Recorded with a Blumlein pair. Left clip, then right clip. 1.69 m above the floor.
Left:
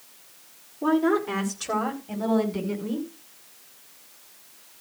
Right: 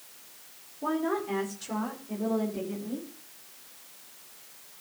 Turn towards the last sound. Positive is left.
turn(degrees=45)